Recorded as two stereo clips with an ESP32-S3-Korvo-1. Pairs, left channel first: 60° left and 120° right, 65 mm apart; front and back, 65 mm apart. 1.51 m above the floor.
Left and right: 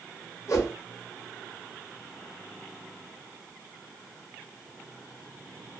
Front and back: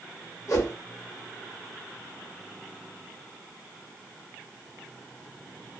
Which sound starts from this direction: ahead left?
A whoosh, at 0.5 s.